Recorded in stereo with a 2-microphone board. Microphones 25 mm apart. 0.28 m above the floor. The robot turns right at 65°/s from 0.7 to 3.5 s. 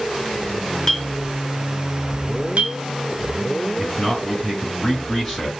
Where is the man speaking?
5° right (ahead or behind), 2.5 m.